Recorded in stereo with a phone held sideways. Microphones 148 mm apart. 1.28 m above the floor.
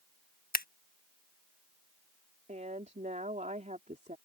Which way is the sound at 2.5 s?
55° right (ahead or behind).